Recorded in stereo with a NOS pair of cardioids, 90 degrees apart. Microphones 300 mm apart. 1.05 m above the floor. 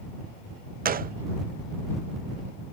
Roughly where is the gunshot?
Ahead right.